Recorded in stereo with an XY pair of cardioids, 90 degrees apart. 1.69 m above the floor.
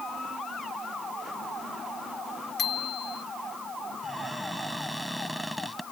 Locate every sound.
2.6 s a bicycle bell: 65° left
4.0 s a cupboard door: straight ahead